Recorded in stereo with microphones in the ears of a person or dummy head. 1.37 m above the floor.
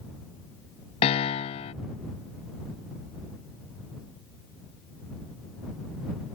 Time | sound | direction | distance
1.0 | a piano | 20° left (ahead or behind) | ?